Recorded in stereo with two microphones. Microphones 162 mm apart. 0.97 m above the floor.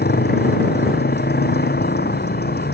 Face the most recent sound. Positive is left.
turn(degrees=90)